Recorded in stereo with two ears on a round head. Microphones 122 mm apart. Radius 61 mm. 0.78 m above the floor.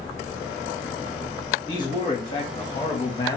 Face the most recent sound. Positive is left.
turn(degrees=30)  # may be behind; listen again after turning